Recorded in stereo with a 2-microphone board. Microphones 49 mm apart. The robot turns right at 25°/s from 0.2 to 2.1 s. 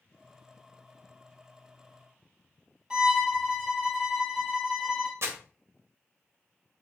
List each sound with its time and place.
2.9 s a violin: 20° right (ahead or behind), 2.5 m
5.2 s crumpling: 65° right (ahead or behind), 1.1 m